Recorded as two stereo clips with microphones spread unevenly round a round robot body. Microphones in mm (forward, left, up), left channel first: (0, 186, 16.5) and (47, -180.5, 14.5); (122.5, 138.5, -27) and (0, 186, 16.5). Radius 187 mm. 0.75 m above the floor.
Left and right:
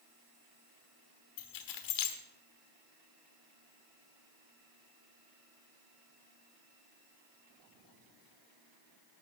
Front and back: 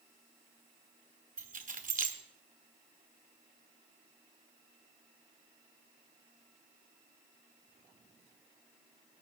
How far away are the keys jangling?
About 1.4 m.